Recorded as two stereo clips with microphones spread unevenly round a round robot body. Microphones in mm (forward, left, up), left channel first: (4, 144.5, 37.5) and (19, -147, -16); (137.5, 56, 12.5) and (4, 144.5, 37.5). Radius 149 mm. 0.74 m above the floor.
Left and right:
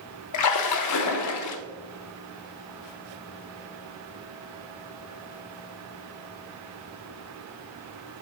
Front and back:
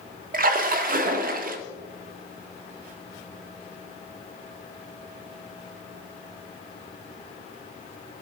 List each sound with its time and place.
0.3 s a splash: 120° left, 0.5 m